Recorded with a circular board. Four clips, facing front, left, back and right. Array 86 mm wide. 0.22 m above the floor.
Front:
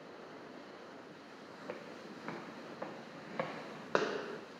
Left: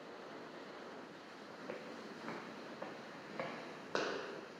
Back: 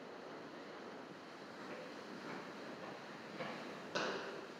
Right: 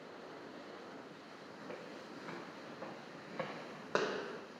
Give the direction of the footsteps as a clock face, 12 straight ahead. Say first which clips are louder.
Left 1 dB, front 5 dB; 11 o'clock.